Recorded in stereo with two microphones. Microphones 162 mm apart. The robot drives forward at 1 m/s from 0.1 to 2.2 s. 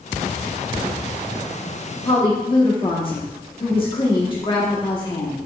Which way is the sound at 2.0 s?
35° left (ahead or behind).